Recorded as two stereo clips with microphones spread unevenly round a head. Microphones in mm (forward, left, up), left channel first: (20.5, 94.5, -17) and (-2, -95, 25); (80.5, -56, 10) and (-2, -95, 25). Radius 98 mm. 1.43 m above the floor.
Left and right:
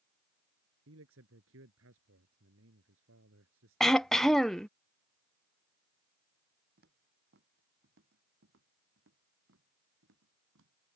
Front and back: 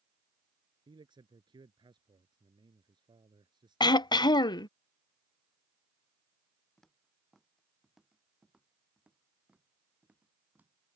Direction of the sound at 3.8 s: 15° right.